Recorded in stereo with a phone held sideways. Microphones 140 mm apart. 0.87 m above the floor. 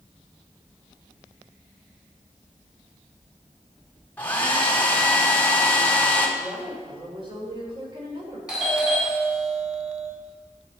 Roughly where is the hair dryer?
Centre.